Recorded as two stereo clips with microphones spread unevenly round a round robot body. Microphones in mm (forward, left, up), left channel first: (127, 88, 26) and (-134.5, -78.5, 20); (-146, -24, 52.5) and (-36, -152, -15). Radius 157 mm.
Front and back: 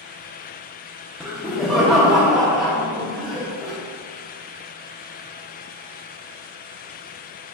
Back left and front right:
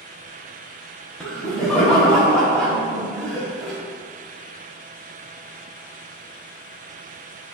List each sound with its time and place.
1.2 s laughter: 65° right, 0.7 m